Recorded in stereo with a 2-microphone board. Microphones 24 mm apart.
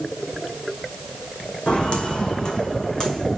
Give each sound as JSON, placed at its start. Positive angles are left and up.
{"t": 1.7, "sound": "footsteps", "side_deg": 55, "distance_m": 1.7}